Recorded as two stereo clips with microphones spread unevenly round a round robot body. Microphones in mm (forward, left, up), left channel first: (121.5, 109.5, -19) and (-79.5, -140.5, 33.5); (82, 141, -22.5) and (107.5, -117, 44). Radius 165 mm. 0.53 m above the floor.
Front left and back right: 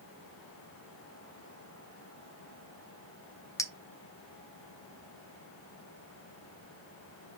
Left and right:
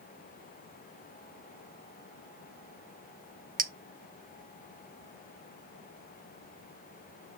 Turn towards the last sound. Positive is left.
turn(degrees=-20)